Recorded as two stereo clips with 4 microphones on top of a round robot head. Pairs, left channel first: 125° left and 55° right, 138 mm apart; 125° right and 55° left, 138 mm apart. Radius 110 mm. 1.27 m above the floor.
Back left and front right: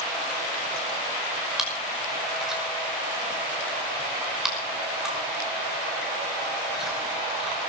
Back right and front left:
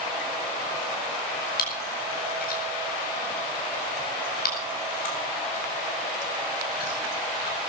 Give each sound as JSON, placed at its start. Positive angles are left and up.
{"t": 1.6, "sound": "chewing", "azimuth_deg": -140, "distance_m": 5.5}